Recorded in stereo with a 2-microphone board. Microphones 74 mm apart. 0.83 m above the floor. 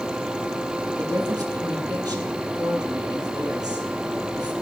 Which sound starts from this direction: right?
A woman speaking, at 1.0 s.